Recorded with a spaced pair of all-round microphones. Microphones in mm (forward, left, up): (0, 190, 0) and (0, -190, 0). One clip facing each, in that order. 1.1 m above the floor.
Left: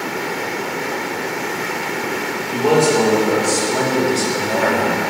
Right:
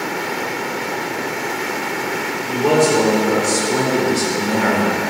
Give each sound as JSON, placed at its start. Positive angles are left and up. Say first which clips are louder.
{"t": 2.5, "sound": "a man speaking", "louder": "even", "side_deg": -25, "distance_m": 3.0}